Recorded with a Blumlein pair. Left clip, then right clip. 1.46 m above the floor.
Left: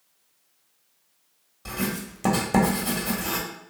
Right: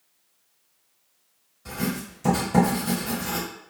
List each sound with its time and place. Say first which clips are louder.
1.6 s writing: even; 30° left, 1.0 m